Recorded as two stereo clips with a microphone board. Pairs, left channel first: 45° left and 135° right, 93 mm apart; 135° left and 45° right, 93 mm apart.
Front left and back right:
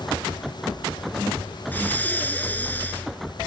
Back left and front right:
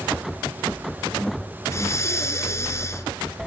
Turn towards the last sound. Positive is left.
turn(degrees=105)